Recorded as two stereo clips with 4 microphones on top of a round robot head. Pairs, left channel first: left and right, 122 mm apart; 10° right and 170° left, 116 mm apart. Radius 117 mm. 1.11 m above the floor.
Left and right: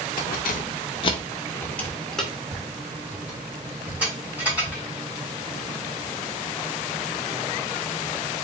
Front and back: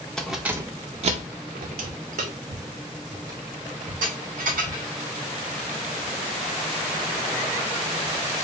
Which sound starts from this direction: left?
Keys jangling, at 0.2 s.